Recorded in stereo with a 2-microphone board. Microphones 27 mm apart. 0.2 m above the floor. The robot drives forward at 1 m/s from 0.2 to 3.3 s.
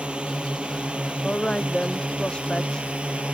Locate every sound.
0.0 s a drone: 40° right (ahead or behind); by 3.4 s 45° right (ahead or behind)
1.2 s a woman speaking: 30° left (ahead or behind); by 2.9 s 25° left (ahead or behind)